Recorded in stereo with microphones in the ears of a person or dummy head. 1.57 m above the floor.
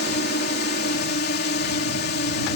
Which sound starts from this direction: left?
A drone, at 0.0 s.